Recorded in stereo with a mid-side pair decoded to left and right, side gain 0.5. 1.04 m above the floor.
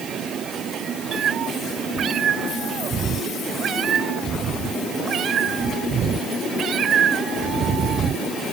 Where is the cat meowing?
55° right.